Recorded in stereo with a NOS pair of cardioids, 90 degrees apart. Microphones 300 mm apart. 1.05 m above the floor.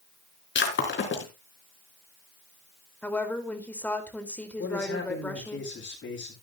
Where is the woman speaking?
5° left, 4 m.